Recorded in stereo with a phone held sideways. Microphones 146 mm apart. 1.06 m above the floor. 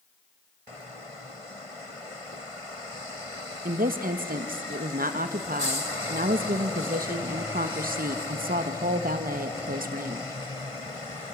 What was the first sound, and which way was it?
A woman speaking, 80° right.